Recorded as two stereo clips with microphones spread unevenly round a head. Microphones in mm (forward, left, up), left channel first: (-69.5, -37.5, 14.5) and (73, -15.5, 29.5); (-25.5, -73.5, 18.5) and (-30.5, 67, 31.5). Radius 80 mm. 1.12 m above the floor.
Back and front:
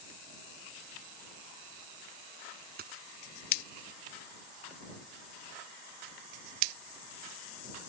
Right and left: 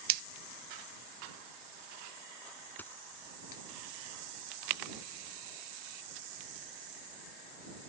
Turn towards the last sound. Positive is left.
turn(degrees=-5)